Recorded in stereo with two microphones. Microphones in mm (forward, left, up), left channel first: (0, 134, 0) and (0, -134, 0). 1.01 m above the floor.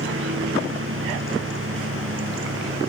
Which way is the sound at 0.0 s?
50° right (ahead or behind).